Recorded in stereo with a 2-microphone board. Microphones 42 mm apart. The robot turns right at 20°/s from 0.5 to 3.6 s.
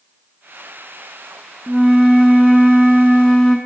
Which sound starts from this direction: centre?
A flute, at 1.7 s.